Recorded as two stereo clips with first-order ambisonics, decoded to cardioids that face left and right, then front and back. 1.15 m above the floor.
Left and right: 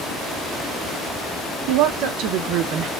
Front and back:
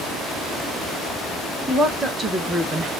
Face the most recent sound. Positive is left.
turn(degrees=-135)